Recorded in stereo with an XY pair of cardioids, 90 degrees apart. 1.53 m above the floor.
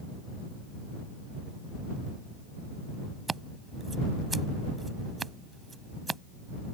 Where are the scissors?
30° right.